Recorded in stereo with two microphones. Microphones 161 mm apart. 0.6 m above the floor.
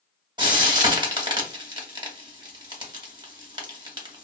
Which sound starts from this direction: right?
Frying, at 0.4 s.